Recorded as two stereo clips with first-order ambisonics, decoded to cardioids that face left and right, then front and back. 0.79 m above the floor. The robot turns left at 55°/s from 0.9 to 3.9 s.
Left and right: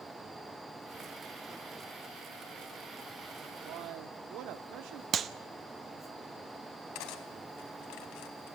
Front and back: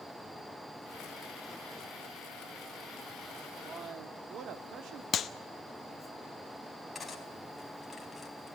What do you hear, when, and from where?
3.6 s a man speaking: 110° right, 1.3 m; by 5.0 s 125° right, 1.3 m
5.1 s a clap: 40° right, 0.8 m
7.0 s cutlery clinking: 80° left, 3 m